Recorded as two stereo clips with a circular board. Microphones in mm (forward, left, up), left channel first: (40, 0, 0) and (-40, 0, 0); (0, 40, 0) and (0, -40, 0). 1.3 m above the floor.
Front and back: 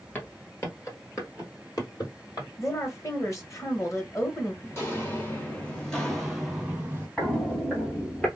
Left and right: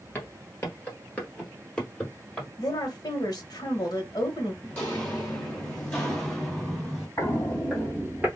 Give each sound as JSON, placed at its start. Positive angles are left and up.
{"t": 0.1, "sound": "footsteps", "azimuth_deg": 45, "distance_m": 1.5}
{"t": 2.6, "sound": "a woman speaking", "azimuth_deg": 50, "distance_m": 1.3}
{"t": 4.6, "sound": "footsteps", "azimuth_deg": 30, "distance_m": 1.7}
{"t": 7.2, "sound": "footsteps", "azimuth_deg": 60, "distance_m": 1.6}